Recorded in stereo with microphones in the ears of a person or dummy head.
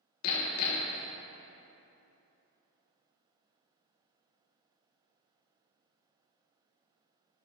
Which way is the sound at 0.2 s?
70° left (ahead or behind).